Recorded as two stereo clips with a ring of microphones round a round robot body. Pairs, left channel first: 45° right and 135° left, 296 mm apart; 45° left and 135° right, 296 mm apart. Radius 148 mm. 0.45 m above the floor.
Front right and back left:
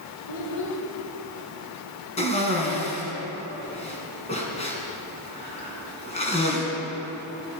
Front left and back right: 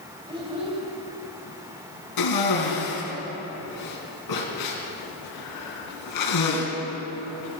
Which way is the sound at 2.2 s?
25° left.